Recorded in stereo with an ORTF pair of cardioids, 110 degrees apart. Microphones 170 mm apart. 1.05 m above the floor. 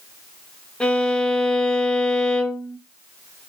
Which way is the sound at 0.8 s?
5° left.